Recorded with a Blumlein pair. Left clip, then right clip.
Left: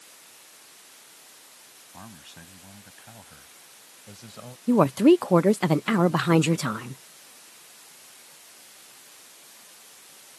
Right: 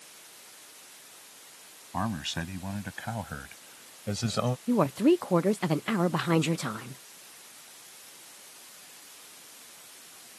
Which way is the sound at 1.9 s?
55° right.